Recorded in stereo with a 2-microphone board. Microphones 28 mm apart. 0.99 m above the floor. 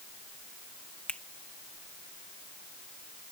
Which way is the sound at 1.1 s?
55° left (ahead or behind).